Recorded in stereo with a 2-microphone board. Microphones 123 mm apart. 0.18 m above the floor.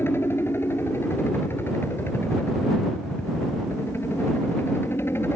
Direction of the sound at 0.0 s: 20° left (ahead or behind).